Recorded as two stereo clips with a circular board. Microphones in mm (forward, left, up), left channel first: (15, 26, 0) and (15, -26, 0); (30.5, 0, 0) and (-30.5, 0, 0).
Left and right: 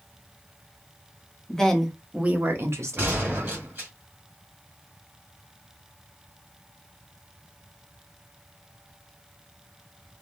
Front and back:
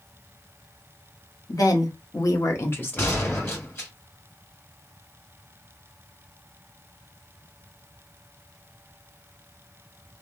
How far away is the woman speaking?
About 0.9 m.